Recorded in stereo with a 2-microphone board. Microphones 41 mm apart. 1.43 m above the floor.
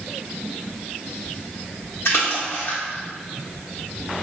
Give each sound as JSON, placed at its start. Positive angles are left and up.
{"t": 2.0, "sound": "a splash", "side_deg": 55, "distance_m": 1.5}